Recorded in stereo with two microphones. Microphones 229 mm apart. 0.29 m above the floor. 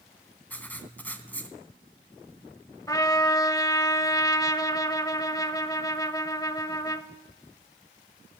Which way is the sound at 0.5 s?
10° left (ahead or behind).